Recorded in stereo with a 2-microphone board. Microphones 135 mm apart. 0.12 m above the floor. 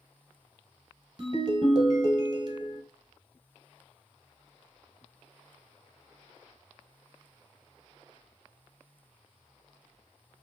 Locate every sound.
1.2 s a ringtone: 40° right (ahead or behind), 1.6 m